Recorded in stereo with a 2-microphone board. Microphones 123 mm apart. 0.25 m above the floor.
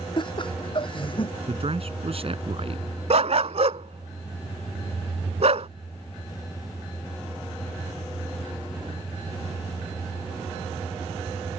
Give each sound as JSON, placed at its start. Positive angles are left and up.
{"t": 0.2, "sound": "laughter", "side_deg": 40}
{"t": 1.5, "sound": "a man speaking", "side_deg": -55}
{"t": 3.1, "sound": "a dog barking", "side_deg": -65}